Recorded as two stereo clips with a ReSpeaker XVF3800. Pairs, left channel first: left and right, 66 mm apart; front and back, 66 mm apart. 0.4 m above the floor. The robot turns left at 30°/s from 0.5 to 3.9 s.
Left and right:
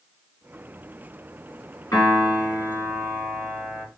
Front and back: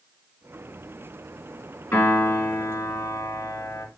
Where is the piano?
55° left, 3.5 m; by 3.9 s straight ahead, 3.5 m.